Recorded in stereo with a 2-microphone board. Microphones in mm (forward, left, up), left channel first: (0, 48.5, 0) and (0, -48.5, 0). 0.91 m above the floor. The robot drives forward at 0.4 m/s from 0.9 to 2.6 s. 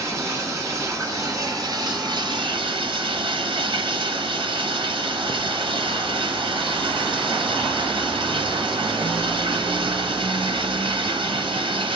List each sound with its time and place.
0.0 s running water: 30° right (ahead or behind), 1.3 m; by 12.0 s 55° right (ahead or behind), 0.8 m